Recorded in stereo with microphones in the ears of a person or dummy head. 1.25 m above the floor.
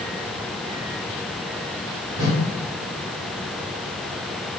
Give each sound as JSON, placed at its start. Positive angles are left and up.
{"t": 2.2, "sound": "a whoosh", "side_deg": -20, "distance_m": 0.9}